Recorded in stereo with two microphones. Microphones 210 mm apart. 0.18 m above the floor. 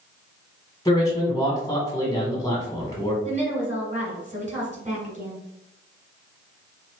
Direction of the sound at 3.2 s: 35° right (ahead or behind).